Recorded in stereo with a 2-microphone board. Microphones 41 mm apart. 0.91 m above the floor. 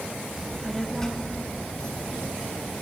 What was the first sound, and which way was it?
A child speaking, 15° right (ahead or behind).